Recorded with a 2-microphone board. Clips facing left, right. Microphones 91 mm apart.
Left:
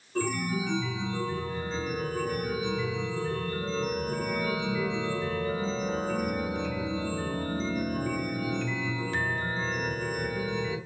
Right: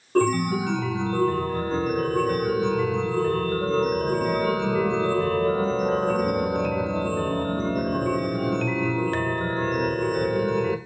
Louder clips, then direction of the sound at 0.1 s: Right 9 dB; 60° right (ahead or behind).